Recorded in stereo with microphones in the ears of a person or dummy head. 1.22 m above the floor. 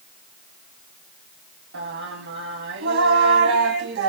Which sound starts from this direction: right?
Singing, at 1.7 s.